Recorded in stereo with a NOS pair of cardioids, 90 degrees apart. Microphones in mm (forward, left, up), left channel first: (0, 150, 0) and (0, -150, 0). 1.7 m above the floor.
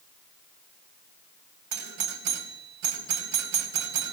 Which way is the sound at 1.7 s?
65° right.